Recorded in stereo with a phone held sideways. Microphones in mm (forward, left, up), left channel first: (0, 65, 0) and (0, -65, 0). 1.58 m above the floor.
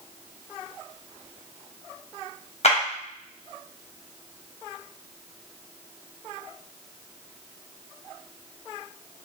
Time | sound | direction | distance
2.6 | a clap | 55° left (ahead or behind) | 1.2 m